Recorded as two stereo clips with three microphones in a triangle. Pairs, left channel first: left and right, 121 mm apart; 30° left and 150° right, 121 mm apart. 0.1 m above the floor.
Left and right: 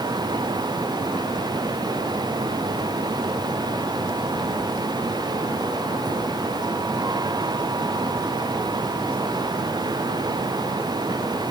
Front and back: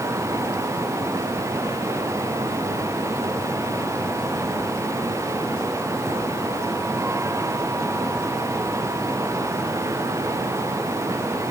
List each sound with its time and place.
Only background noise.